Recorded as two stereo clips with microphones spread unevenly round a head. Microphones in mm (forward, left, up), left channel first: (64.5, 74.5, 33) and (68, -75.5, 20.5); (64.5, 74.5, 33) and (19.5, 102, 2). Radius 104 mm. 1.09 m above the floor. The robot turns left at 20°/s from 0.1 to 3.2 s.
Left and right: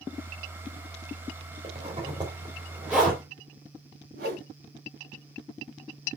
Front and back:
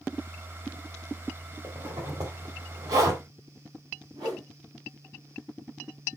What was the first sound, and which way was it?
A zipper, 145° right.